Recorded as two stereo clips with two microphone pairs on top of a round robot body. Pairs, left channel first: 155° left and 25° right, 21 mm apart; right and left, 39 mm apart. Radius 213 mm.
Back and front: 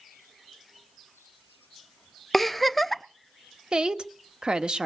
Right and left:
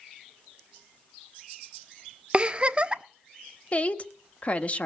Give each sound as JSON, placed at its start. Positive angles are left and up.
{"t": 2.3, "sound": "a giggle", "azimuth_deg": 70, "distance_m": 1.2}
{"t": 3.7, "sound": "a woman speaking", "azimuth_deg": -35, "distance_m": 1.8}